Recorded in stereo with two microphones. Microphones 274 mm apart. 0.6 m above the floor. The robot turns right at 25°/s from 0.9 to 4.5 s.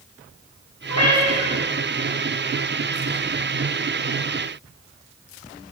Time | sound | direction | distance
0.9 | a cat meowing | 60° left (ahead or behind) | 3 m